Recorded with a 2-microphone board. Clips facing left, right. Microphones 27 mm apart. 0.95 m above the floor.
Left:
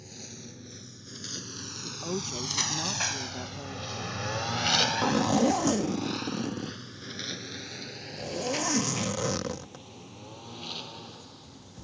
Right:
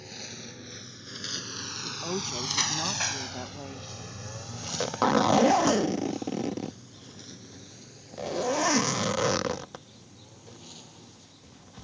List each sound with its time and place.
0.0 s a lawn mower: 30° right (ahead or behind); by 11.8 s 45° left (ahead or behind)
1.8 s a woman speaking: 15° right (ahead or behind)
4.6 s a zipper: 30° right (ahead or behind)